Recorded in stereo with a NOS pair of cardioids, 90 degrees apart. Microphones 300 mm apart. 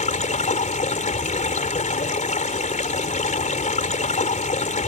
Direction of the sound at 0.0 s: 25° left.